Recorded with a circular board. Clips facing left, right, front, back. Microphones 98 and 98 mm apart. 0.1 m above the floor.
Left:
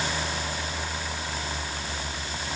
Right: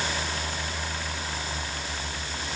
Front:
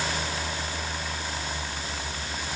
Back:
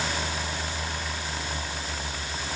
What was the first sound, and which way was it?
Only background noise.